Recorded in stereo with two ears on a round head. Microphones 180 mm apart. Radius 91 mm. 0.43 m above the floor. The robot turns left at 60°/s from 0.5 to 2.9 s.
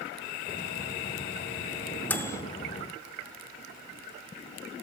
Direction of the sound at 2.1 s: 10° left (ahead or behind).